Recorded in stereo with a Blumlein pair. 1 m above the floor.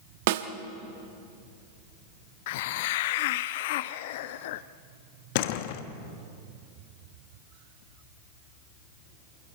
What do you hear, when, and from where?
0.3 s a snare drum: 50° right, 1.2 m
2.5 s a hiss: 50° left, 0.6 m
5.3 s a door slam: 50° left, 1.2 m